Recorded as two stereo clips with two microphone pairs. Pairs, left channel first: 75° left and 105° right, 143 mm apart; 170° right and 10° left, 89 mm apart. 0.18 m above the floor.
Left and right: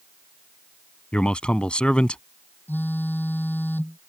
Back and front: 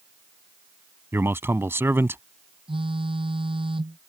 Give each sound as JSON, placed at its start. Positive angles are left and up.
{"t": 1.1, "sound": "a man speaking", "azimuth_deg": -5}
{"t": 2.7, "sound": "a phone buzzing", "azimuth_deg": -5}